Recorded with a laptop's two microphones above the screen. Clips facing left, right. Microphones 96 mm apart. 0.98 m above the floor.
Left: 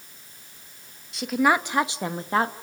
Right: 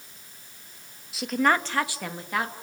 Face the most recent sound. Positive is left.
turn(degrees=35)  # may be behind; listen again after turning